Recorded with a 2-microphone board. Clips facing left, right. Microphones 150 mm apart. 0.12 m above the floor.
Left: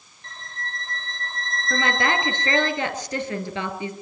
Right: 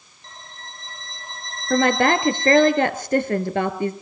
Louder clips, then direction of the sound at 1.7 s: Right 7 dB; 55° right (ahead or behind).